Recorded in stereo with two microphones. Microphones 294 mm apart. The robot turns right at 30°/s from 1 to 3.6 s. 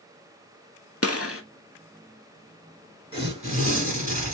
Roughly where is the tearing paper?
Centre.